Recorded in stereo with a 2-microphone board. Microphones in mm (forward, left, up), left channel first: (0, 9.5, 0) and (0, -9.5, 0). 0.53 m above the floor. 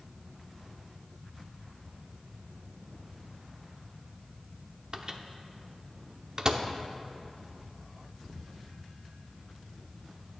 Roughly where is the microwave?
Right.